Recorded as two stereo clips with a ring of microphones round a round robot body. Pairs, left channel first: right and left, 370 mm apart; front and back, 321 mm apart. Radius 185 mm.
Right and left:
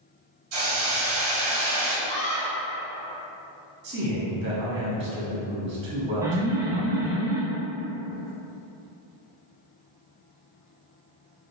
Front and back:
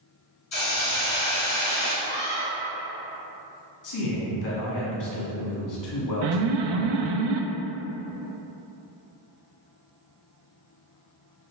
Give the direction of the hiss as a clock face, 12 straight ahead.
11 o'clock.